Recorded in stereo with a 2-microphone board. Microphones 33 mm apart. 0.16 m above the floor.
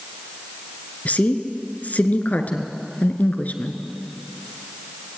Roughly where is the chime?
No chime in this recording.